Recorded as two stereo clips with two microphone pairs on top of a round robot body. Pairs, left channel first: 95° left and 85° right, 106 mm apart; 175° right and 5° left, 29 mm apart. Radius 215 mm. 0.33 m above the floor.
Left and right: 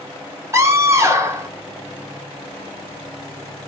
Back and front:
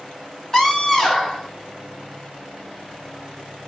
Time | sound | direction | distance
0.5 | a scream | 120° right | 1.7 m